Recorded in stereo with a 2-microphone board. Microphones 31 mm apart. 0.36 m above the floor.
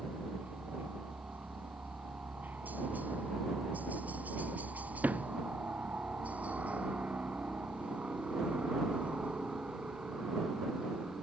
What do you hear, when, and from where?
0.0 s a helicopter: 65° right (ahead or behind); by 11.2 s 30° right (ahead or behind)
5.0 s a sliding door: 55° right (ahead or behind)